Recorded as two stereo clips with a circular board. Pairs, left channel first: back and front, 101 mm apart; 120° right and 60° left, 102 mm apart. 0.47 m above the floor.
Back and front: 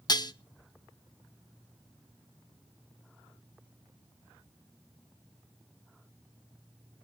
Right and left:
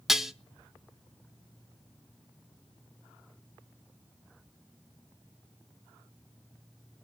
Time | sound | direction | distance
0.1 | dishes clattering | 145° left | 0.8 m